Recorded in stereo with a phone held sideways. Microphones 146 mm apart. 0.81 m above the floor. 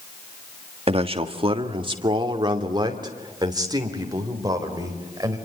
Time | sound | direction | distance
0.9 | a man speaking | 40° right (ahead or behind) | 1.6 m